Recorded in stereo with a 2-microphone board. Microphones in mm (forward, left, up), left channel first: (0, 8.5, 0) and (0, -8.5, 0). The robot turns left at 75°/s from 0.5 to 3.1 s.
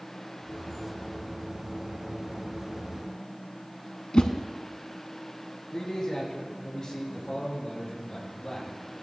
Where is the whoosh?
60° left (ahead or behind), 0.9 m.